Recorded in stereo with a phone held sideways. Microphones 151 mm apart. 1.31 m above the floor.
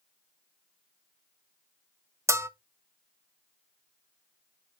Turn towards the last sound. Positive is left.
turn(degrees=-20)  # may be behind; listen again after turning